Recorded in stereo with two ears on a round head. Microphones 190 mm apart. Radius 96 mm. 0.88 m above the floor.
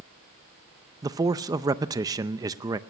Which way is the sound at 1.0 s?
15° right (ahead or behind).